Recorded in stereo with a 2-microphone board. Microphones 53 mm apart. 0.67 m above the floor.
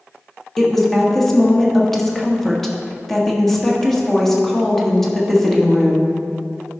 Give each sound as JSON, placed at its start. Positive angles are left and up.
{"t": 0.6, "sound": "a woman speaking", "side_deg": 5, "distance_m": 1.2}